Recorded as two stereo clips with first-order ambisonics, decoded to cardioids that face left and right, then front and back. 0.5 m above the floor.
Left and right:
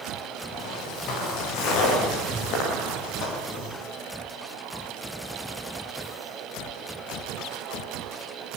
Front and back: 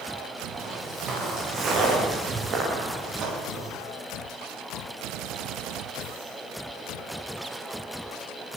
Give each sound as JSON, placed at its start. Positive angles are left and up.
{"t": 0.5, "sound": "footsteps", "azimuth_deg": 115, "distance_m": 7.5}